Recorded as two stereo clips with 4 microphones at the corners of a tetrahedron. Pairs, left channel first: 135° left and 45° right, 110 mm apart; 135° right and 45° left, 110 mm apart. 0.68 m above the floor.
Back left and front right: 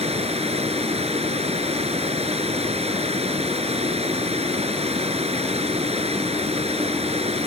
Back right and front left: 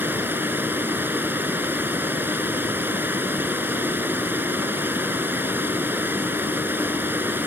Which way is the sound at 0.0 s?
25° right.